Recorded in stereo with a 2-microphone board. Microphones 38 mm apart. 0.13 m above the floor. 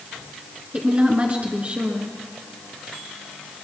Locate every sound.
0.7 s a woman speaking: 40° right (ahead or behind), 1.8 m